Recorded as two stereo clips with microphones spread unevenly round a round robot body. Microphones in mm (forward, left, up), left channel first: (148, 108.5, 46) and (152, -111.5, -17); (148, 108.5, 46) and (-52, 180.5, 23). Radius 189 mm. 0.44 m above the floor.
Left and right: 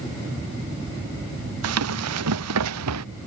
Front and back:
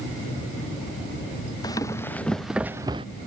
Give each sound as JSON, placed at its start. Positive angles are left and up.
{"t": 1.6, "sound": "running footsteps", "azimuth_deg": -100}